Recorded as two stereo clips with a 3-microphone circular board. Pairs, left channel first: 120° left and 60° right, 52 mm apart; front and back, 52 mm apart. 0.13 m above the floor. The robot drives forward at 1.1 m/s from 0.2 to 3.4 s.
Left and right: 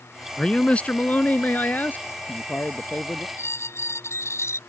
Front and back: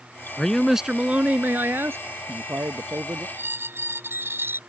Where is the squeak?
140° left.